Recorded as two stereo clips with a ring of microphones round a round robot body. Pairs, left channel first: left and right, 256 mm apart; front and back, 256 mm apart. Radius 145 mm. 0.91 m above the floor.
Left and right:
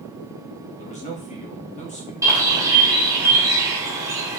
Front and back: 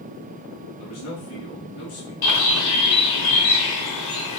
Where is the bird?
10° right, 1.4 m.